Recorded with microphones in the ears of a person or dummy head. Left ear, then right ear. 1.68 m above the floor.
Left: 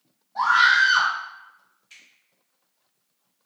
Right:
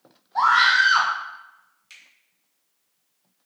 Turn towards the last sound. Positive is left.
turn(degrees=-55)  # may be behind; listen again after turning